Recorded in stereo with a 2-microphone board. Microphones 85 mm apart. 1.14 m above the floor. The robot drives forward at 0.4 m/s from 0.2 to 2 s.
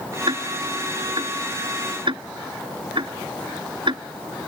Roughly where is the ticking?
Right.